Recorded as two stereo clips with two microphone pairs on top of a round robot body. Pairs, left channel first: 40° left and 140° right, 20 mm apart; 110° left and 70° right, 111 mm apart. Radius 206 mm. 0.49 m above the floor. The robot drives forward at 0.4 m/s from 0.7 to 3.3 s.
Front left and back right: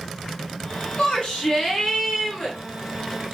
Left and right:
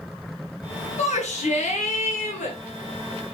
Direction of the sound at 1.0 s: 95° left.